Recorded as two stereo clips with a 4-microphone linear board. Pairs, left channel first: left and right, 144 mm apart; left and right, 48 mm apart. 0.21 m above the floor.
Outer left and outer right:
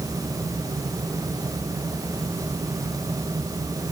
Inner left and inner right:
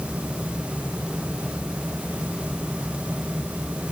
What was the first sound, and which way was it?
Only background noise.